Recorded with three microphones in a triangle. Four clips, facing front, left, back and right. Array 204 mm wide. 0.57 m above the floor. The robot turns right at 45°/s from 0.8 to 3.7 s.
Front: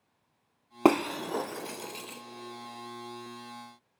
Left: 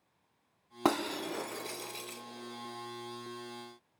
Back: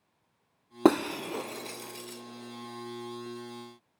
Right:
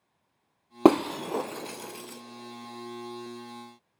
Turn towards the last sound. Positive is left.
turn(degrees=25)